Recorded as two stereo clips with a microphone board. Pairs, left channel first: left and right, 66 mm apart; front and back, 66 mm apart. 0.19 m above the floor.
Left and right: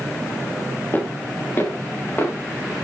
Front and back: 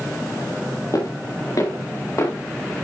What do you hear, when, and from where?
0.9 s footsteps: 35° left, 3.5 m